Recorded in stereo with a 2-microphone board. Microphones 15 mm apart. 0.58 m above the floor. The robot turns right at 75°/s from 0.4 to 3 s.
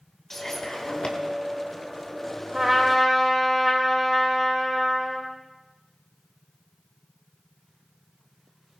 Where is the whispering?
25° left (ahead or behind), 2.5 m; by 1.2 s 65° left (ahead or behind), 2.5 m.